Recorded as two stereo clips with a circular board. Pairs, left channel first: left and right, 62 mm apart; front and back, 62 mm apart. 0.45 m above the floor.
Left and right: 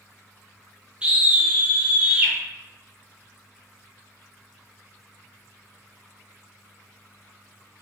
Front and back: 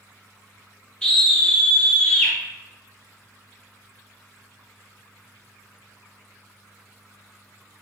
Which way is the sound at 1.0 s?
55° right.